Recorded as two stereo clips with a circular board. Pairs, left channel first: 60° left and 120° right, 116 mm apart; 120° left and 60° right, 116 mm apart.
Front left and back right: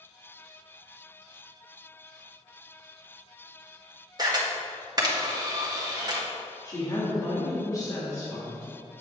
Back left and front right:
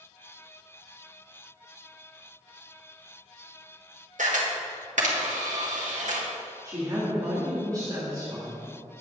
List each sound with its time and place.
4.2 s a camera shutter: 65° right, 1.5 m
6.7 s a woman speaking: straight ahead, 2.5 m